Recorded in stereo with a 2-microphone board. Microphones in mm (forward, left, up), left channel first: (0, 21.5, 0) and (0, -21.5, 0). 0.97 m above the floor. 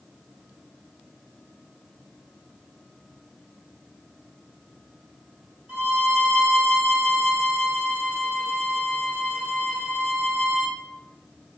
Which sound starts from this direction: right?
A violin, at 5.7 s.